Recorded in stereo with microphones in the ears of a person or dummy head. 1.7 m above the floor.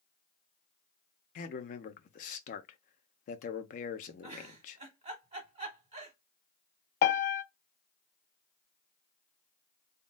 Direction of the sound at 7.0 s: 45° left (ahead or behind).